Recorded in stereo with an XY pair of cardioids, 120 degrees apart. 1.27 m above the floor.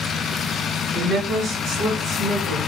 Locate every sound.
0.9 s a woman speaking: 65° right, 1.9 m